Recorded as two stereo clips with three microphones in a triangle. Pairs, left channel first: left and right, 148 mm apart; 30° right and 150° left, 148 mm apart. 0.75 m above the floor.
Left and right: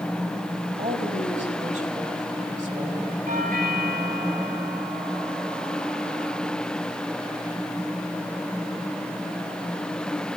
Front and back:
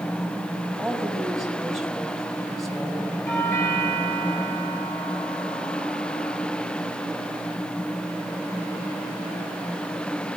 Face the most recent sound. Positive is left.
turn(degrees=-105)